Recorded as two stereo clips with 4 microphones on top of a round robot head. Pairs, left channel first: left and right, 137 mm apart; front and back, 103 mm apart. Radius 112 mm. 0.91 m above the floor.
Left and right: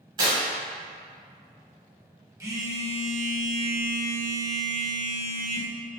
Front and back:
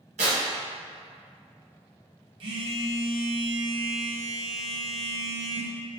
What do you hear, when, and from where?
0.2 s tearing paper: 135° right, 1.0 m
2.4 s a phone buzzing: 155° right, 0.8 m